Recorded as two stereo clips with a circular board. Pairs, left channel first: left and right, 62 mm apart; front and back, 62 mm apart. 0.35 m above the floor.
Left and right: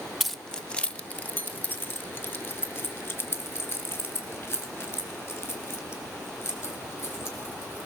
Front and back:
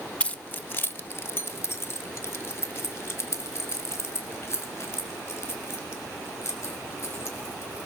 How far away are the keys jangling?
About 0.6 m.